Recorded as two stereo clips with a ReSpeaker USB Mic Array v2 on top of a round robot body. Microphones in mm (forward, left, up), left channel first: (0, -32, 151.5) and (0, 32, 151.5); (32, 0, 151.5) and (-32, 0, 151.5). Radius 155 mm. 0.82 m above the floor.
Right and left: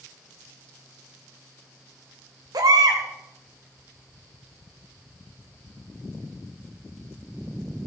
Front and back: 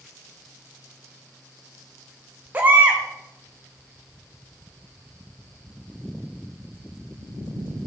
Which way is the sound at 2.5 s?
115° left.